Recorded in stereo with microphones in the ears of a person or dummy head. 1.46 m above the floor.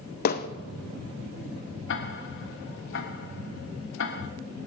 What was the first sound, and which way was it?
Hammering, 45° left (ahead or behind).